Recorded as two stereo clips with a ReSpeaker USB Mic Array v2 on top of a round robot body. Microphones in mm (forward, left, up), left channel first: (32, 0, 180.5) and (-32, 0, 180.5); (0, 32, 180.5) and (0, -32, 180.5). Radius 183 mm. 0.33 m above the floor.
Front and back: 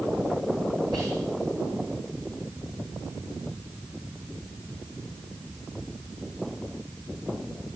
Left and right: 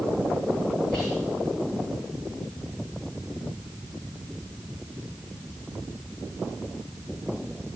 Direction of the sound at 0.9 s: 165° left.